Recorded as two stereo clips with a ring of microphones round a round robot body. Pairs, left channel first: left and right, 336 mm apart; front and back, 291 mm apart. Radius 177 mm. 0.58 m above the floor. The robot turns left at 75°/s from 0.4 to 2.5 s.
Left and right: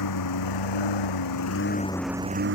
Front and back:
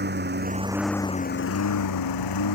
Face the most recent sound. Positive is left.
turn(degrees=-35)